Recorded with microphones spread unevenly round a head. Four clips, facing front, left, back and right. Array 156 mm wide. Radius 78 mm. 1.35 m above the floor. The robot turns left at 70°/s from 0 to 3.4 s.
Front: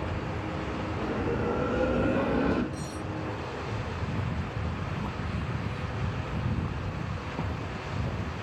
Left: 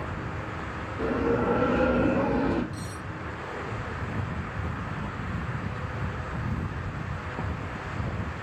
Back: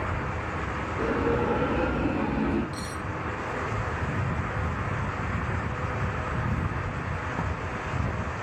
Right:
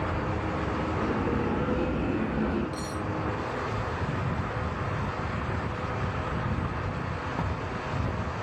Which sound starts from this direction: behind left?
A bell, at 1.0 s.